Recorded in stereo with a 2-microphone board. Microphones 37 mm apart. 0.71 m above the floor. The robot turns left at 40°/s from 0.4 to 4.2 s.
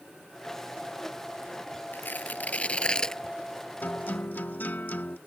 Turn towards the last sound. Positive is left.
turn(degrees=60)  # may be behind; listen again after turning